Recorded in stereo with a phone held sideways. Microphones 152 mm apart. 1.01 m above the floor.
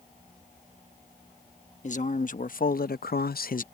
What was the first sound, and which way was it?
A man speaking, 50° left (ahead or behind).